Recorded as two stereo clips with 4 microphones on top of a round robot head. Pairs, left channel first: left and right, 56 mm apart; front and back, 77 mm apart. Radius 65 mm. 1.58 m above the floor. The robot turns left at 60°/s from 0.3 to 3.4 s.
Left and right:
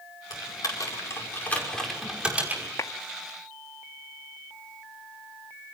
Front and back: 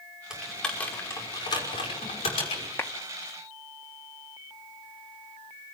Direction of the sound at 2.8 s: 60° left.